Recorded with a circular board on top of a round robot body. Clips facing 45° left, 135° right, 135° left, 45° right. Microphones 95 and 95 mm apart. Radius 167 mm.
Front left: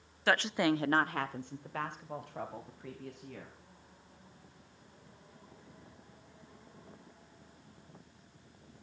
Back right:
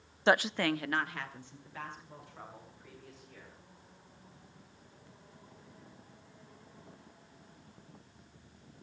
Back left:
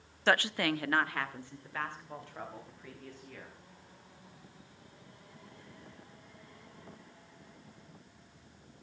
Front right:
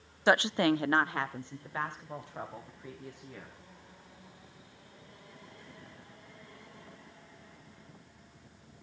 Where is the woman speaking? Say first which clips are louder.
Back right 1 dB, front right 4 dB; 100° right, 1.0 m; by 3.5 s 30° left, 5 m.